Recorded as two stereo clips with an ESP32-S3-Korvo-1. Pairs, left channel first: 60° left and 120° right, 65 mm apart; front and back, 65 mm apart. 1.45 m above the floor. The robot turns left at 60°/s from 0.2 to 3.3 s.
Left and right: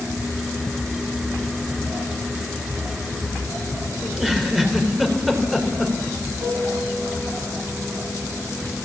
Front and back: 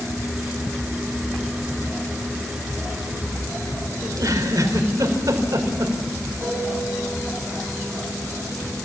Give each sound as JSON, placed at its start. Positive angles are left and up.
{"t": 4.0, "sound": "a giggle", "azimuth_deg": 155, "distance_m": 4.0}
{"t": 6.4, "sound": "a piano", "azimuth_deg": -130, "distance_m": 8.0}